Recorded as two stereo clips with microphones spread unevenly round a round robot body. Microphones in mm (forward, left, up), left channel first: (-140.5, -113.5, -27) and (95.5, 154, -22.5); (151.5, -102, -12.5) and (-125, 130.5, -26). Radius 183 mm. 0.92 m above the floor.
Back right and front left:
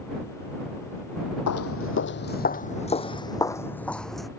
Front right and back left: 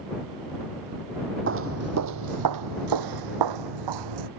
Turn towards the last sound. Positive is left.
turn(degrees=140)